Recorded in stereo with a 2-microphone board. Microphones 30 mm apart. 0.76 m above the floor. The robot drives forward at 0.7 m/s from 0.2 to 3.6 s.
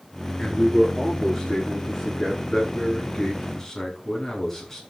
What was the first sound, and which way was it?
A man speaking, 10° left (ahead or behind).